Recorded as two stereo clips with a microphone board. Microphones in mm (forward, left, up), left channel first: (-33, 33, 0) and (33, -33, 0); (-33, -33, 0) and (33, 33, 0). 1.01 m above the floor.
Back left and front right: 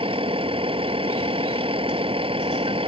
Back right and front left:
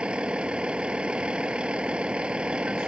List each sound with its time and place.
0.0 s a vehicle: 35° right